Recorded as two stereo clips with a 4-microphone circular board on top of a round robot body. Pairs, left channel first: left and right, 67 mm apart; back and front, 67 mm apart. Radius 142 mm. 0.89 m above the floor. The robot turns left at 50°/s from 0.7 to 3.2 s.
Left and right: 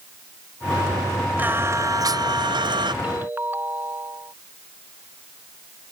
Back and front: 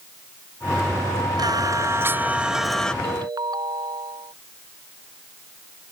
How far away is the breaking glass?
No breaking glass in this recording.